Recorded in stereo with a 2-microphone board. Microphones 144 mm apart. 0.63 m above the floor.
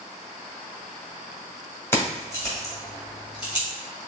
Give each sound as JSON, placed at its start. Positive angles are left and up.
{"t": 1.9, "sound": "keys jangling", "side_deg": 15, "distance_m": 2.0}